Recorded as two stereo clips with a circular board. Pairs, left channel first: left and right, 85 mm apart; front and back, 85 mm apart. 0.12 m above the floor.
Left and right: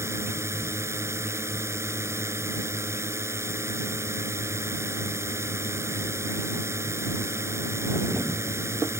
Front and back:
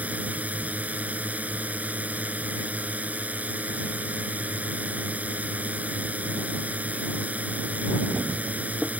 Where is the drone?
120° right.